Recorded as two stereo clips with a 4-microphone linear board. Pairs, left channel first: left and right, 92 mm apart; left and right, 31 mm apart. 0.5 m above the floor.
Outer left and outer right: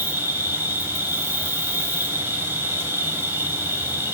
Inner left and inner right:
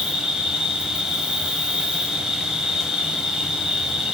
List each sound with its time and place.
0.0 s an insect: 25° right (ahead or behind), 1.2 m